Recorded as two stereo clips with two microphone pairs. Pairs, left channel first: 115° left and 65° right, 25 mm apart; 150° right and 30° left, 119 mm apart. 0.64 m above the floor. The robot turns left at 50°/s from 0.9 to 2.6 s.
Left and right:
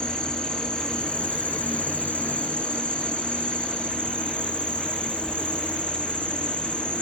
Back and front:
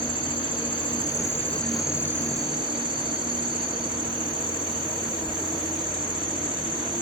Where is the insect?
165° left, 0.9 m; by 7.0 s 80° left, 0.9 m.